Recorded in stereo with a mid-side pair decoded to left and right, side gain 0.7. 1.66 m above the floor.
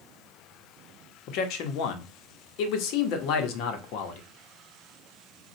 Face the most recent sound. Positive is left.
turn(degrees=60)